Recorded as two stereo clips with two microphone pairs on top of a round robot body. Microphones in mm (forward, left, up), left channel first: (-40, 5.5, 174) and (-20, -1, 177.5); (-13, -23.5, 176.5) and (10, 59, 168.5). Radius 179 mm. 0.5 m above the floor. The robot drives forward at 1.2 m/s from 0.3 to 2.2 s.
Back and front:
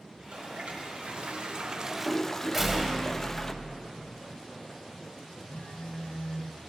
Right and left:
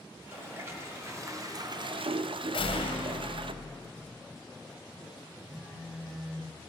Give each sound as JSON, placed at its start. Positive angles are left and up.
{"t": 0.1, "sound": "a toilet flushing", "azimuth_deg": 10, "distance_m": 2.5}
{"t": 2.5, "sound": "a door slam", "azimuth_deg": -105, "distance_m": 1.7}
{"t": 5.5, "sound": "a phone buzzing", "azimuth_deg": 150, "distance_m": 2.5}